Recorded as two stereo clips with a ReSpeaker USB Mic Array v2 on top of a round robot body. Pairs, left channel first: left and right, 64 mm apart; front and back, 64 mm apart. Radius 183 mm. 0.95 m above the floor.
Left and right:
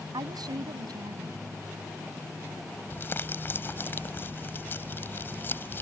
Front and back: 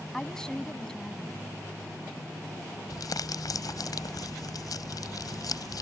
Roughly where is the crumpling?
Ahead left.